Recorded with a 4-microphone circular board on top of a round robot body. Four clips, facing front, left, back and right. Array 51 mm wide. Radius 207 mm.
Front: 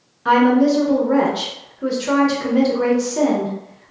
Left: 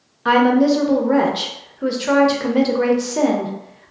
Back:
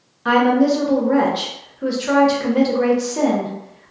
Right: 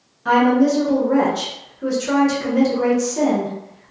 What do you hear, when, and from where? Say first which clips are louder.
0.2 s a woman speaking: left 1 dB, front 1 dB; 100° left, 1.0 m